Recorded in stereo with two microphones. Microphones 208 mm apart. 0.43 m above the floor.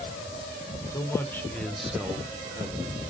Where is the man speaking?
15° left (ahead or behind), 1.1 m; by 3.1 s 20° right (ahead or behind), 1.3 m.